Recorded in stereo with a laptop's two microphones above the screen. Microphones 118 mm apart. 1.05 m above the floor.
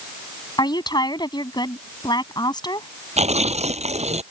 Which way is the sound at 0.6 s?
35° left (ahead or behind).